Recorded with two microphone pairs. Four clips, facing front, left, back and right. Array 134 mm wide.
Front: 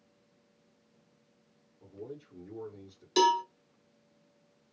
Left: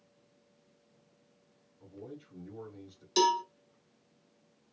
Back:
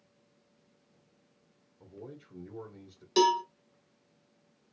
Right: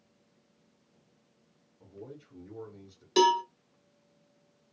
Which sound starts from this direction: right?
A cowbell, at 3.2 s.